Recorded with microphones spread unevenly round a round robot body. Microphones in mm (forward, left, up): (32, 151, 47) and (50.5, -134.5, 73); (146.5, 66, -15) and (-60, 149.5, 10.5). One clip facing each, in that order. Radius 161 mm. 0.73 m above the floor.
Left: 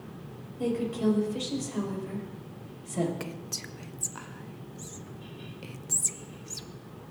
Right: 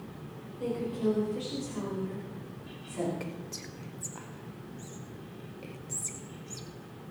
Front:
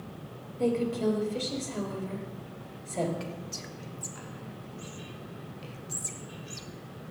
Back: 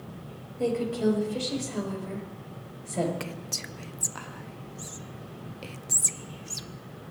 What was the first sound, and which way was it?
A woman speaking, 80° left.